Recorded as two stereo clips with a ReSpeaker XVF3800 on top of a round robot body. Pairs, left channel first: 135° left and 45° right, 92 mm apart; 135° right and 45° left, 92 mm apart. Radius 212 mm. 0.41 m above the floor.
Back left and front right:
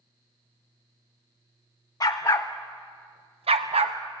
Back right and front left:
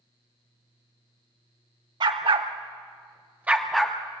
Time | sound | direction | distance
2.0 | a dog barking | 80° left | 1.2 m